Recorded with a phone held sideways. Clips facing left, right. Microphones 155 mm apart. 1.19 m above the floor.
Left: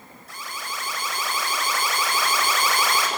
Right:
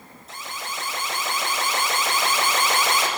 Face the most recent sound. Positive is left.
turn(degrees=-20)  # may be behind; listen again after turning